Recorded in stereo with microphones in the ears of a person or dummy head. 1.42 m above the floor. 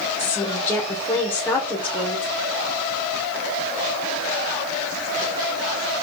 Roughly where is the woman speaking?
Centre.